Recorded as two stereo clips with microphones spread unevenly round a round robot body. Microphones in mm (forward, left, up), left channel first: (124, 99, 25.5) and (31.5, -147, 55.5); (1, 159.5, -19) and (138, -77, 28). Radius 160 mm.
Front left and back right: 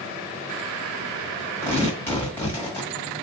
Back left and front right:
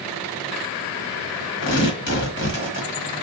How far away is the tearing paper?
About 1.3 m.